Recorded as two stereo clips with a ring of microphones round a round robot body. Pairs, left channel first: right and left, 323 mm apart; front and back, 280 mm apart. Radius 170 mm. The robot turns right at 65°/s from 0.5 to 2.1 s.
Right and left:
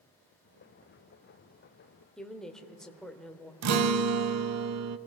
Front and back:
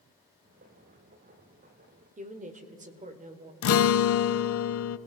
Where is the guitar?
45° left, 0.5 m.